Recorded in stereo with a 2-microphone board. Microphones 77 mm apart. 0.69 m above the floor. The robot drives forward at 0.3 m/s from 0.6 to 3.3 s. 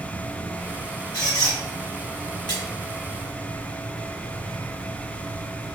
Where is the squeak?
55° left (ahead or behind), 1.6 m.